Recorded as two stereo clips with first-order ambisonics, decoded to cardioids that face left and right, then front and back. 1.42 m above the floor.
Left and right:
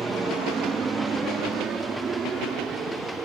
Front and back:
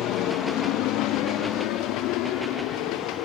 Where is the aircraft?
20° right.